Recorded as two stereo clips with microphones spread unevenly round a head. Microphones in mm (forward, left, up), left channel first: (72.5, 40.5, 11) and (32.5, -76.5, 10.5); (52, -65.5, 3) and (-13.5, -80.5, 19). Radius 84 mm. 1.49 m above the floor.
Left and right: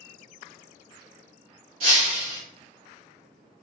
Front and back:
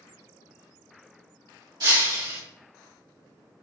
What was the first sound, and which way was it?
Breaking glass, 165° right.